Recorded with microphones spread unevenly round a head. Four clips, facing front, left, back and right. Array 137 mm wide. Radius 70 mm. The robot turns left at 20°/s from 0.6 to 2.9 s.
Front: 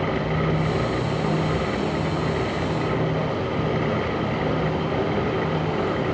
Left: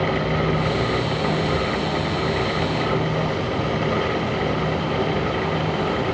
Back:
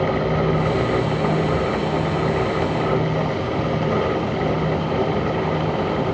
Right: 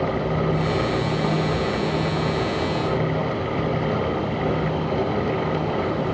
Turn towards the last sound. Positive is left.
No sound to turn to.